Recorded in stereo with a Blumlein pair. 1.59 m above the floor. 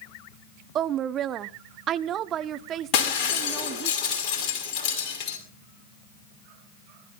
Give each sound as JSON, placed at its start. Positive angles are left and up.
{"t": 0.8, "sound": "a woman speaking", "azimuth_deg": -30, "distance_m": 0.7}
{"t": 2.9, "sound": "breaking glass", "azimuth_deg": 40, "distance_m": 5.5}